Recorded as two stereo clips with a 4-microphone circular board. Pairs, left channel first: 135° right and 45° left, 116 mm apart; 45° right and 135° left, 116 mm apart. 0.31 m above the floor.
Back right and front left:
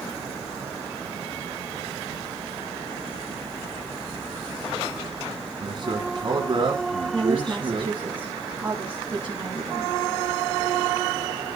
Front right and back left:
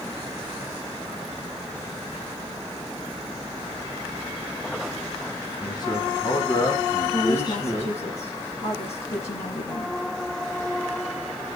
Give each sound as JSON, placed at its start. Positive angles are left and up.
{"t": 5.6, "sound": "a man speaking", "azimuth_deg": 5, "distance_m": 3.5}
{"t": 7.1, "sound": "a woman speaking", "azimuth_deg": -35, "distance_m": 3.5}